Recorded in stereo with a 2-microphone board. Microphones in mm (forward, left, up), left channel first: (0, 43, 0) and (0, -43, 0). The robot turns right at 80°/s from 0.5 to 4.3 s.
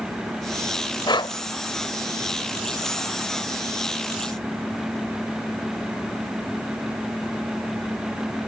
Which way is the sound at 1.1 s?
55° left (ahead or behind).